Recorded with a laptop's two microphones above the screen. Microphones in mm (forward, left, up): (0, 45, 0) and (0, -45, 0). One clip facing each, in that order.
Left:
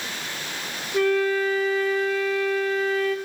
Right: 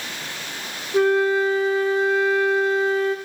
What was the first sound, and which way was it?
A flute, 30° right (ahead or behind).